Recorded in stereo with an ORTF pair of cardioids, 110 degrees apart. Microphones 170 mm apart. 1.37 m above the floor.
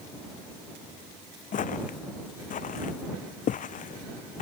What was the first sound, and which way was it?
Footsteps, 50° left.